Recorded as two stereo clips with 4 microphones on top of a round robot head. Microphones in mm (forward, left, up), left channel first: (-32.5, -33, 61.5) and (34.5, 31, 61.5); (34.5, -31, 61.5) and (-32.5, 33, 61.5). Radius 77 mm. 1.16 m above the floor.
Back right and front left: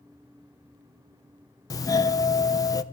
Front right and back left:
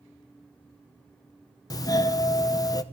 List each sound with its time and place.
1.7 s a doorbell: 90° right, 0.8 m